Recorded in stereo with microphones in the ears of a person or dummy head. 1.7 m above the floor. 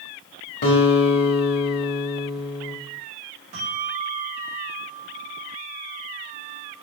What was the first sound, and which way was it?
A guitar, 45° left (ahead or behind).